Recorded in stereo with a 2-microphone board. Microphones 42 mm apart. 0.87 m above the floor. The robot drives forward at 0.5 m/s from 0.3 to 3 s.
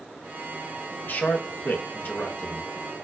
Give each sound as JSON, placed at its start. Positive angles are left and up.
{"t": 1.0, "sound": "a man speaking", "side_deg": 45, "distance_m": 0.7}